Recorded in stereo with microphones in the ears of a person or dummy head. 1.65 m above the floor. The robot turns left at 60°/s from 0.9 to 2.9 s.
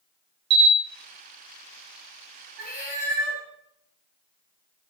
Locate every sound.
0.5 s a camera shutter: 80° right, 0.6 m
2.6 s a cat meowing: 30° right (ahead or behind), 1.7 m; by 3.4 s 15° right (ahead or behind), 1.7 m